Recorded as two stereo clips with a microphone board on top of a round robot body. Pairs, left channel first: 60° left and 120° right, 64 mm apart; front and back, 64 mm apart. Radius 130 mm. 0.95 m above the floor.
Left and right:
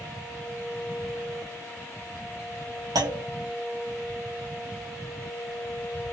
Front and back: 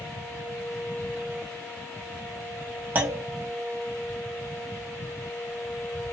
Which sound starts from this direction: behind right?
A clunk, at 3.0 s.